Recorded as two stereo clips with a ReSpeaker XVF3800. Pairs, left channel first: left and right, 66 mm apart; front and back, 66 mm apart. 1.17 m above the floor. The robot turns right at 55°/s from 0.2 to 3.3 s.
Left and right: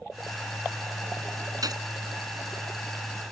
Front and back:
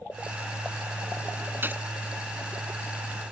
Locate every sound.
1.6 s a gunshot: 120° right; by 1.8 s 110° right